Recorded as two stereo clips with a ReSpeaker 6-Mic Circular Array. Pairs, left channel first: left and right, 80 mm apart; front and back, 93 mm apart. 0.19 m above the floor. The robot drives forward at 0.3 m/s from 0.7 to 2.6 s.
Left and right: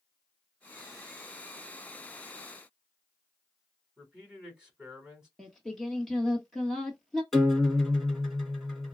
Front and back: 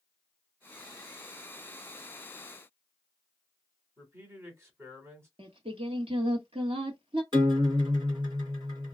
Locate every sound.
4.0 s a man speaking: 165° right, 1.4 m
5.4 s singing: 175° left, 1.0 m
7.3 s a guitar: straight behind, 1.7 m